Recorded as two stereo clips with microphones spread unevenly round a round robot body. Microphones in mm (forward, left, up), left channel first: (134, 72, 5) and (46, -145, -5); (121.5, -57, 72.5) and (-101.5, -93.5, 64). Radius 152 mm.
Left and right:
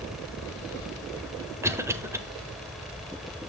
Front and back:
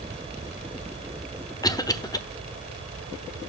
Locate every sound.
1.6 s a cough: 50° right, 1.0 m